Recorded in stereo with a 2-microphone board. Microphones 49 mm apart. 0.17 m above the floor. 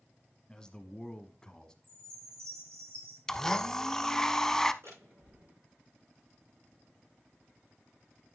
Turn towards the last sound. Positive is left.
turn(degrees=-60)  # may be behind; listen again after turning